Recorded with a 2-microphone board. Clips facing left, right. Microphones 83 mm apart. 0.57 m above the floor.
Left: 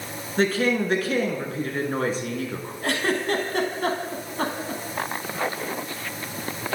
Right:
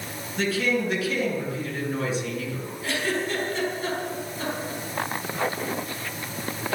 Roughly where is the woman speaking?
Left.